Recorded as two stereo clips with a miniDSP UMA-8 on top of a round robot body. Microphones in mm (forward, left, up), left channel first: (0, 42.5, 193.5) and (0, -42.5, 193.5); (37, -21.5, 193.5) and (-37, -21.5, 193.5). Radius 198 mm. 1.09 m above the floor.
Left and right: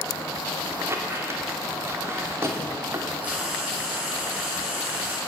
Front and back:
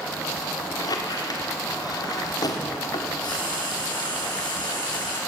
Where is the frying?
20° right, 6.5 m.